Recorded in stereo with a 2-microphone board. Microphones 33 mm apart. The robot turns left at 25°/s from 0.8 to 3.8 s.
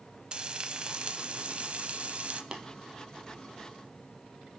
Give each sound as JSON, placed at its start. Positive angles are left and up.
{"t": 0.3, "sound": "frying", "azimuth_deg": -50, "distance_m": 0.8}
{"t": 2.5, "sound": "tapping", "side_deg": -20, "distance_m": 1.5}